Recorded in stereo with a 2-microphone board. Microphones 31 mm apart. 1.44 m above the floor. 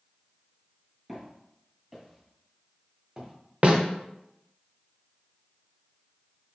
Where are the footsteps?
5° left (ahead or behind), 2.0 m; by 3.3 s 5° right (ahead or behind), 1.4 m.